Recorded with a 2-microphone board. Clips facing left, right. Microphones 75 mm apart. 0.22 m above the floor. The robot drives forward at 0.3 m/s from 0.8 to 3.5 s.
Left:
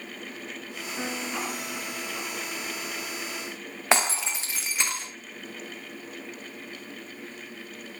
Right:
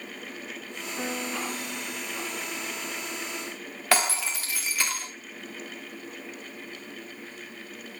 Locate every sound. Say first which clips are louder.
1.0 s a piano: even; 10° left (ahead or behind), 2.5 m
3.9 s breaking glass: left 1 dB; 20° left (ahead or behind), 2 m